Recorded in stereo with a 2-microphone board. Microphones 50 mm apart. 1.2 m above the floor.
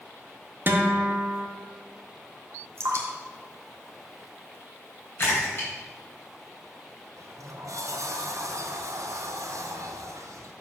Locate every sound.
0.7 s a guitar: 45° right (ahead or behind), 1.0 m
2.8 s dripping: 60° right (ahead or behind), 1.6 m
5.2 s a splash: 45° left (ahead or behind), 4 m
7.2 s a sliding door: 75° right (ahead or behind), 0.7 m